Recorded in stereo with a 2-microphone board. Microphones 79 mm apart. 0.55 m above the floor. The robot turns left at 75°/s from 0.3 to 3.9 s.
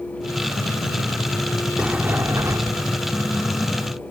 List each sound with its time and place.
1.8 s a sliding door: 15° right; by 2.9 s 105° right